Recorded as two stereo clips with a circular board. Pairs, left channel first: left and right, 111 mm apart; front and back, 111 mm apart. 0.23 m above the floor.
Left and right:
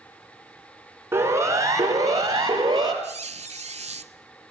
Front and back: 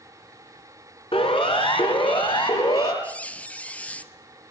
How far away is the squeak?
About 0.6 m.